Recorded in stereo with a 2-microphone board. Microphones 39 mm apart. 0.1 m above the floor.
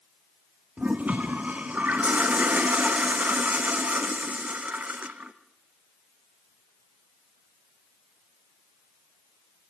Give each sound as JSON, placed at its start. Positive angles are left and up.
{"t": 0.8, "sound": "a toilet flushing", "side_deg": -40, "distance_m": 1.8}